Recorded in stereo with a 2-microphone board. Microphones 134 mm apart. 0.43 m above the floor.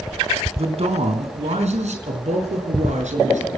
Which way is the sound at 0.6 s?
55° right (ahead or behind).